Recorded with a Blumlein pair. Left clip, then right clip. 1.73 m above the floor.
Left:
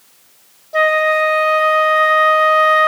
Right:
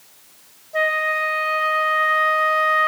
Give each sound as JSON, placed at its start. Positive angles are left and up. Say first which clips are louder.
{"t": 0.7, "sound": "a flute", "louder": "left 6 dB", "azimuth_deg": 50, "distance_m": 1.0}